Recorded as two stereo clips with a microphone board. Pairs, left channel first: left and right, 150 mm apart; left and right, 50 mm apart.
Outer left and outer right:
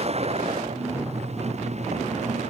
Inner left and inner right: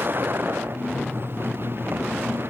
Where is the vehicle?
45° right (ahead or behind); by 2.5 s 50° right (ahead or behind).